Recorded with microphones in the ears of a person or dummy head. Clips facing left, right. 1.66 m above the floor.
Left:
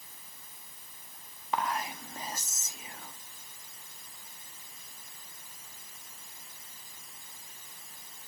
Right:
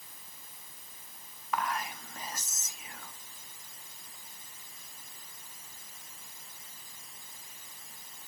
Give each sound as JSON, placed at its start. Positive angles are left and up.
{"t": 1.5, "sound": "whispering", "side_deg": 25, "distance_m": 0.6}